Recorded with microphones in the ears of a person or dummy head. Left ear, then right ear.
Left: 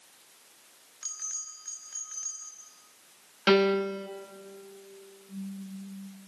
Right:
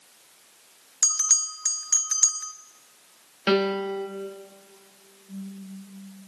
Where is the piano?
5° left (ahead or behind), 1.2 m.